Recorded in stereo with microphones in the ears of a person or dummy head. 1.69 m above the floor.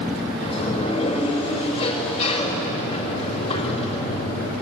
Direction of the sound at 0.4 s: 35° left (ahead or behind).